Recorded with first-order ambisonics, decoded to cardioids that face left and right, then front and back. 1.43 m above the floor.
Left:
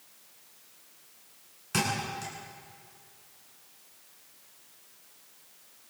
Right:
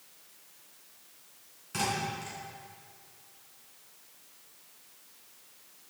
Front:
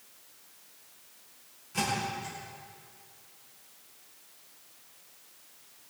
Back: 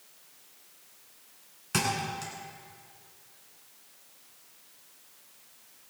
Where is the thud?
150° left, 8.5 m.